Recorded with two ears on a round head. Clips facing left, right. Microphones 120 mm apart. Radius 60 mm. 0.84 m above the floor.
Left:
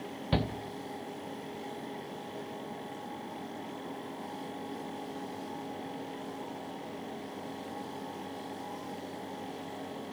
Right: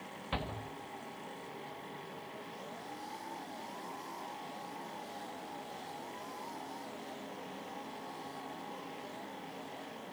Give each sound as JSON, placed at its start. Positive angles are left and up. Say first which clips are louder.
{"t": 0.3, "sound": "a shout", "louder": "left 8 dB", "side_deg": 45, "distance_m": 1.4}